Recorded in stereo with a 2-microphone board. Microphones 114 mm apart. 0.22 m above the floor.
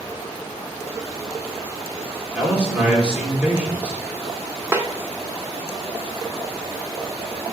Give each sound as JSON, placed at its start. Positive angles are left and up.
{"t": 2.4, "sound": "a man speaking", "side_deg": -10, "distance_m": 3.5}
{"t": 4.7, "sound": "a snare drum", "side_deg": -20, "distance_m": 1.1}